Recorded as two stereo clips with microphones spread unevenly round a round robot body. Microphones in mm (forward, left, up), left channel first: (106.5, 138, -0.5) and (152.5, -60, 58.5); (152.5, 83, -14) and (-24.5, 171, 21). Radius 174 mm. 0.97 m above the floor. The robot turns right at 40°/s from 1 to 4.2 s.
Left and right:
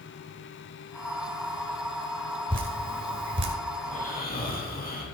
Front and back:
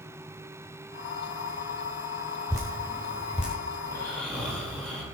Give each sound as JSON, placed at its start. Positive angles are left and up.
{"t": 2.5, "sound": "dripping", "azimuth_deg": -135, "distance_m": 1.3}
{"t": 3.8, "sound": "snoring", "azimuth_deg": 45, "distance_m": 6.0}